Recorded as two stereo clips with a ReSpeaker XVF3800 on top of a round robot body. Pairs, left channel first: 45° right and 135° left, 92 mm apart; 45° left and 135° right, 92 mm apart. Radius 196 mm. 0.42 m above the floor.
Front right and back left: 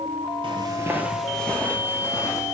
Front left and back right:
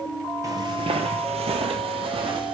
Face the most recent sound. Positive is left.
turn(degrees=-100)